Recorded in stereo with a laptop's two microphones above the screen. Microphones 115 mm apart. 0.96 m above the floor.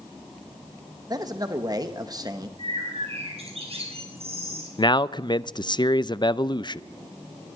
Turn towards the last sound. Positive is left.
turn(degrees=40)  # may be behind; listen again after turning